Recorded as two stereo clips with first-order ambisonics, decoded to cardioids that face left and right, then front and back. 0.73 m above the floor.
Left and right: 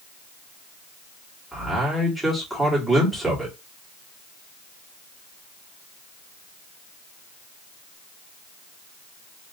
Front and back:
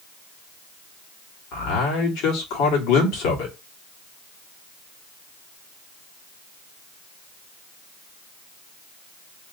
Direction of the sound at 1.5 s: Straight ahead.